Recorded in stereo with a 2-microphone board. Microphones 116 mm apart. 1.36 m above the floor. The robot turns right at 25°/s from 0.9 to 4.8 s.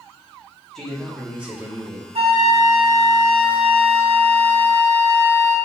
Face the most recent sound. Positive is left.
turn(degrees=-35)